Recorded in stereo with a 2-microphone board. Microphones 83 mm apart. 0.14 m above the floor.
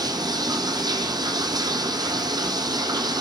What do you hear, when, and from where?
0.0 s running water: 60° right (ahead or behind), 1.0 m